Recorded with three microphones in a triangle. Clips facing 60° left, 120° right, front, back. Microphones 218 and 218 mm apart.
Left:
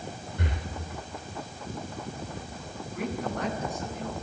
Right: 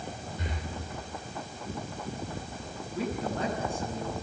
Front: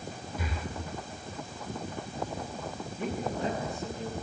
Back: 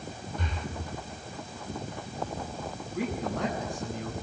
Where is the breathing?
85° left, 3 m.